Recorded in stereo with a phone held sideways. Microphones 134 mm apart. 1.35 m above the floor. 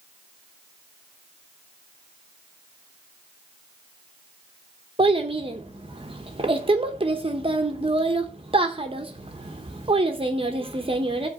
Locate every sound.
5.0 s a child speaking: 40° right (ahead or behind), 0.8 m